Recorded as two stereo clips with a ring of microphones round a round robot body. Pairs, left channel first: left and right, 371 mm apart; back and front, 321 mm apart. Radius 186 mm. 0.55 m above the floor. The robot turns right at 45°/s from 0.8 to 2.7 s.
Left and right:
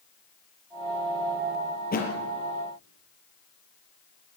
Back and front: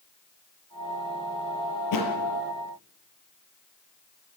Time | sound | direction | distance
1.9 | a thud | 155° left | 5.5 m